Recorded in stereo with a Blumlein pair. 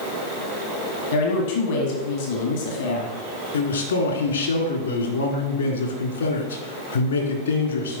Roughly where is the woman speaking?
Ahead left.